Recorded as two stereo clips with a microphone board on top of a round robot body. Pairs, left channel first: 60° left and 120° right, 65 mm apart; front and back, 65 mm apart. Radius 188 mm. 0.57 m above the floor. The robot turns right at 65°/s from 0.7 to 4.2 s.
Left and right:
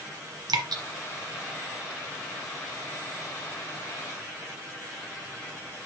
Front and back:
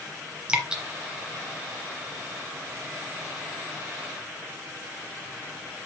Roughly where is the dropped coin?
I don't hear a dropped coin.